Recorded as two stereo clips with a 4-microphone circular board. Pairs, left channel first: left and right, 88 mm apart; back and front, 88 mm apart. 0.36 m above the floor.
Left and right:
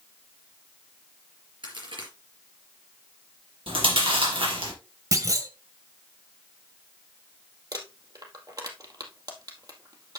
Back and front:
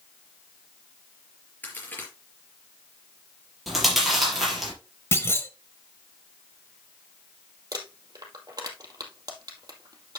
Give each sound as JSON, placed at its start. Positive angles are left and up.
{"t": 1.6, "sound": "a crack", "azimuth_deg": -110, "distance_m": 4.5}
{"t": 3.7, "sound": "chewing", "azimuth_deg": -90, "distance_m": 5.0}
{"t": 5.1, "sound": "a clunk", "azimuth_deg": -125, "distance_m": 1.2}
{"t": 7.7, "sound": "crumpling", "azimuth_deg": -45, "distance_m": 2.0}